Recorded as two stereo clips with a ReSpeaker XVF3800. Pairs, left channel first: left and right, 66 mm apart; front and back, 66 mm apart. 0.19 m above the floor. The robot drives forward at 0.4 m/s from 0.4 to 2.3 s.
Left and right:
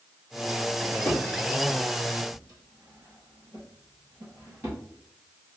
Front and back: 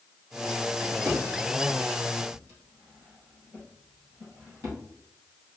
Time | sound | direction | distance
0.8 | a drawer | 130° right | 2 m